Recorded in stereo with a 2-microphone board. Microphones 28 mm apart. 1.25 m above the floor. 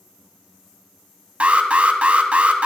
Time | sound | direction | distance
1.4 | an alarm | 55° right (ahead or behind) | 1.0 m